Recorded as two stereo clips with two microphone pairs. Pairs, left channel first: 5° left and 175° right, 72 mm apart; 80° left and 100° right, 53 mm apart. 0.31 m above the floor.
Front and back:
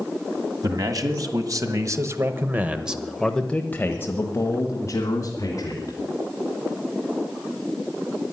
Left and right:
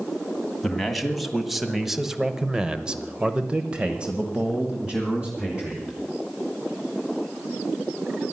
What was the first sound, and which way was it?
A man speaking, 170° left.